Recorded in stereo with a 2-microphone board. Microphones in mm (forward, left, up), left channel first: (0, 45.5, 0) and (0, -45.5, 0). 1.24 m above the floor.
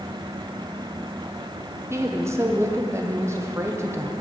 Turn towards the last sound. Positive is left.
turn(degrees=-30)  # may be behind; listen again after turning